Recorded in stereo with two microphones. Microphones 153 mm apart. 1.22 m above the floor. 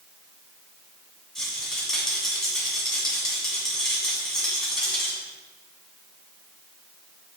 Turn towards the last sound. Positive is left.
turn(degrees=0)  # may be behind; listen again after turning